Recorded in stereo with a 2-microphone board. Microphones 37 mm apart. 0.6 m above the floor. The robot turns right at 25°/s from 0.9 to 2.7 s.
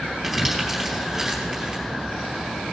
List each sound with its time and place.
0.2 s crumpling: centre (ahead or behind), 4.5 m; by 1.8 s 25° right (ahead or behind), 4.5 m